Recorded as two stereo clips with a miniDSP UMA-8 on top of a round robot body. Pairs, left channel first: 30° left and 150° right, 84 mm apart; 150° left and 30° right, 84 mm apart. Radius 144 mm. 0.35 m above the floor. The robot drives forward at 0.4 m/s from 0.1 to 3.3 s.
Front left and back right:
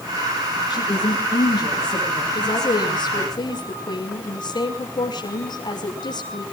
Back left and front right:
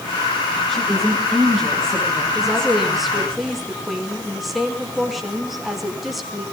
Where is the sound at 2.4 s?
55° left, 6 m; by 6.5 s 60° left, 6 m.